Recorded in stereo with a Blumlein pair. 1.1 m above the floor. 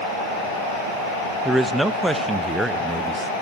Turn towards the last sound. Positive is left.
turn(degrees=-5)